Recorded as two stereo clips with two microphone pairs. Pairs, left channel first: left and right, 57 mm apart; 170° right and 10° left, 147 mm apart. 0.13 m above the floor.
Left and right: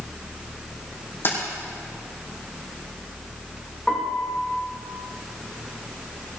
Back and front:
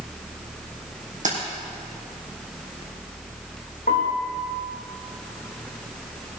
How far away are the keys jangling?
About 3.5 m.